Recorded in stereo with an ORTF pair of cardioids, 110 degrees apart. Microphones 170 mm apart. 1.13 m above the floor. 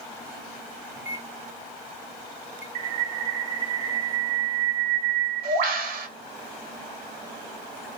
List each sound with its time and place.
1.0 s a microwave: 15° right, 0.6 m
2.8 s a bird: 60° right, 1.5 m